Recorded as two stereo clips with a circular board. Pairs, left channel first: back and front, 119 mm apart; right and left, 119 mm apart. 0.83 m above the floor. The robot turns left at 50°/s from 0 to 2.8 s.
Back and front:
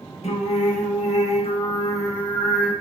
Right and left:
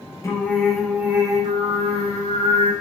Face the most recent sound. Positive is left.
turn(degrees=80)